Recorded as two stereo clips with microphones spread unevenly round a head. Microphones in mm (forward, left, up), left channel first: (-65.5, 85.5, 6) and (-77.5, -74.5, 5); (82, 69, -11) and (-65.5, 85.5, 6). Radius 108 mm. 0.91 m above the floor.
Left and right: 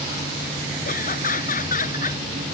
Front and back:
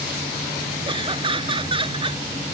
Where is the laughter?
120° left.